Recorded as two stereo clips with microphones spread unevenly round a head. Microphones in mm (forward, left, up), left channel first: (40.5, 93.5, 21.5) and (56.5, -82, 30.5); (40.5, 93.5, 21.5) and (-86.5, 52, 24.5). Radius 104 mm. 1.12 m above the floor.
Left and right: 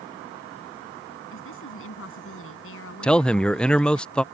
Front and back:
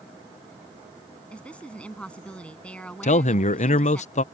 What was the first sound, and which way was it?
A woman speaking, 100° left.